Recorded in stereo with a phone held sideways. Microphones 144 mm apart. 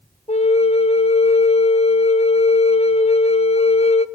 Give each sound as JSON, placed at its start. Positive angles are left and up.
{"t": 0.3, "sound": "a flute", "side_deg": 45, "distance_m": 0.6}